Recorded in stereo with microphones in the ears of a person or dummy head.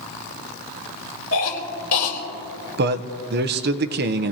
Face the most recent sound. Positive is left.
turn(degrees=-45)  # may be behind; listen again after turning